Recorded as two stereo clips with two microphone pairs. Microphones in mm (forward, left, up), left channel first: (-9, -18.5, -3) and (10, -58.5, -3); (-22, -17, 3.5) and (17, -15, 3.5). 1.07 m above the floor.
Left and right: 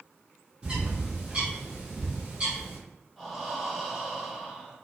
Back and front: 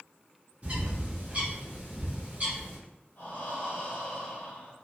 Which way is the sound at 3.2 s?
150° right.